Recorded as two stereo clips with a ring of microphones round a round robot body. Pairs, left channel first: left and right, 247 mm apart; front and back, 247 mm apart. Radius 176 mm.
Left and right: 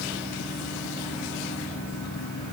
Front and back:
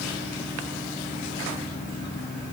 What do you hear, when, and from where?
Only background noise.